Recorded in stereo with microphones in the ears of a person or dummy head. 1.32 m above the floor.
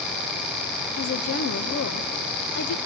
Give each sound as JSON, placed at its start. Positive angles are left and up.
{"t": 1.0, "sound": "a woman speaking", "side_deg": 65, "distance_m": 1.2}